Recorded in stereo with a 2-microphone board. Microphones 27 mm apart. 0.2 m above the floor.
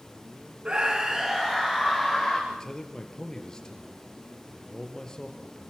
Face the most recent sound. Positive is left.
turn(degrees=30)  # may be behind; listen again after turning